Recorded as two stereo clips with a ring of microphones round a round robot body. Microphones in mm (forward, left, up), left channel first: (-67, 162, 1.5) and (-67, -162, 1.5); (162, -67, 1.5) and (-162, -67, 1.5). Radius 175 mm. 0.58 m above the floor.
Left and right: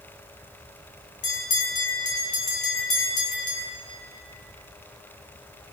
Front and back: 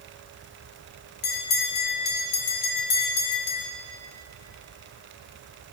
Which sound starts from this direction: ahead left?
A bell, at 1.2 s.